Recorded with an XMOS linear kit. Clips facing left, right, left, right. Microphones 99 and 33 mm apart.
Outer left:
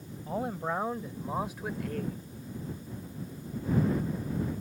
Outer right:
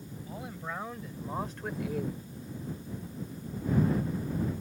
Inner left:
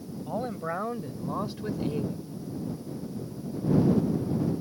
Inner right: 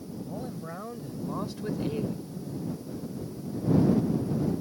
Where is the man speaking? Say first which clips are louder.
Outer left 9 dB, inner left 9 dB; 50° left (ahead or behind); by 2.2 s 20° right (ahead or behind).